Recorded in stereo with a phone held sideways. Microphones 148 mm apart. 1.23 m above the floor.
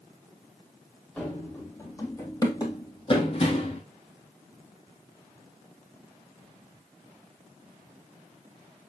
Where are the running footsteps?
10° left (ahead or behind), 2.5 m; by 3.8 s 45° left (ahead or behind), 2 m.